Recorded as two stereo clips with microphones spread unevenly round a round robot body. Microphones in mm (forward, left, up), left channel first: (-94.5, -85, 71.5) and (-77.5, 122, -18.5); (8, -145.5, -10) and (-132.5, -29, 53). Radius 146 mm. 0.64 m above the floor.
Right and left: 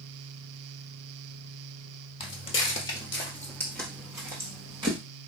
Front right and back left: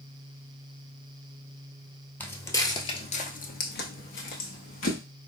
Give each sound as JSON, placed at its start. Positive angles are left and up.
{"t": 2.2, "sound": "footsteps", "azimuth_deg": -130, "distance_m": 1.0}